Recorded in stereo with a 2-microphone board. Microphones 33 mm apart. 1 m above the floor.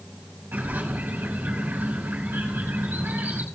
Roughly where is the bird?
Right.